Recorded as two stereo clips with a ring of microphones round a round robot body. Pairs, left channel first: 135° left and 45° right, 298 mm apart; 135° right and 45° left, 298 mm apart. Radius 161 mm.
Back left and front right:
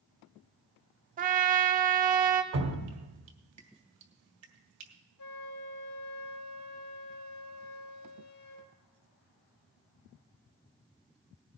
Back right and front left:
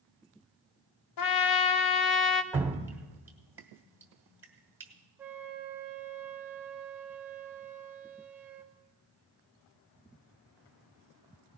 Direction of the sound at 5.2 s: 130° left.